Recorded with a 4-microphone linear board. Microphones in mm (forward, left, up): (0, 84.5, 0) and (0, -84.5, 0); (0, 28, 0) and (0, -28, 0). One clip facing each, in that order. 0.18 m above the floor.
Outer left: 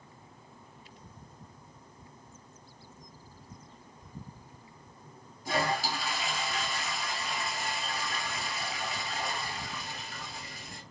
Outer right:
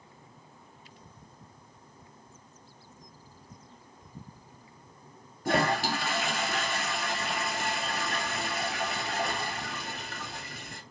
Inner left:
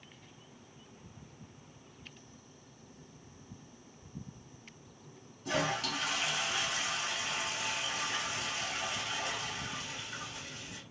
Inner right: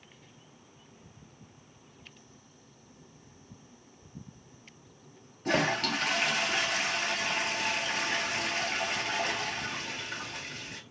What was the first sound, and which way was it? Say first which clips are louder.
A toilet flushing: outer right 4 dB, inner right 5 dB; 65° right (ahead or behind).